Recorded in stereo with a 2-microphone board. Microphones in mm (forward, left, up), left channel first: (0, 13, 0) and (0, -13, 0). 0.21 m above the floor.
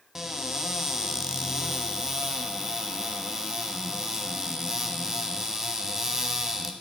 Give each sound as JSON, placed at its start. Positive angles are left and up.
{"t": 0.1, "sound": "a cupboard door", "side_deg": -20, "distance_m": 0.5}